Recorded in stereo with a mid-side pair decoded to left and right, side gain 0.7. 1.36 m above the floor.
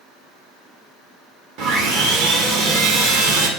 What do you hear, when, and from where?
1.6 s sawing: 65° right, 1.1 m